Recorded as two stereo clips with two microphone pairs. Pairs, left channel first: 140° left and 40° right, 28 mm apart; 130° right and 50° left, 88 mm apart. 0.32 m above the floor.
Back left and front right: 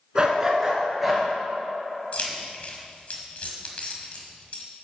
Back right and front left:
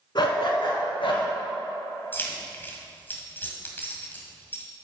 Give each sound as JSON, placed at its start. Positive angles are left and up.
{"t": 0.1, "sound": "a dog barking", "azimuth_deg": -105, "distance_m": 1.5}
{"t": 2.1, "sound": "keys jangling", "azimuth_deg": 165, "distance_m": 1.5}